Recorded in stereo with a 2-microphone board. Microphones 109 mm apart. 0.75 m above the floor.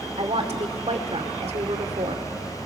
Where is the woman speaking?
70° right (ahead or behind), 2 m.